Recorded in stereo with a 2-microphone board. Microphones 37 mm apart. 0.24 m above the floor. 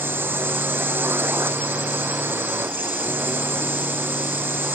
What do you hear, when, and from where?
0.0 s a drone: 70° right (ahead or behind)